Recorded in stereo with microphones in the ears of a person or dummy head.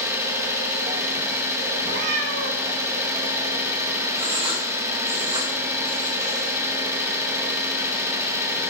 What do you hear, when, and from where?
0.0 s an engine running: 10° right (ahead or behind), 1.1 m
1.8 s a cat meowing: 65° right (ahead or behind), 1.2 m
4.2 s writing: 25° right (ahead or behind), 1.9 m